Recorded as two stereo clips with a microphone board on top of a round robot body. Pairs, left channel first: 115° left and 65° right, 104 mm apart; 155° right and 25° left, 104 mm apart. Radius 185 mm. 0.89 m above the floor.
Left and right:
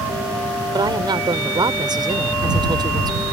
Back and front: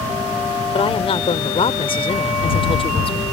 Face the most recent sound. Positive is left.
turn(degrees=-120)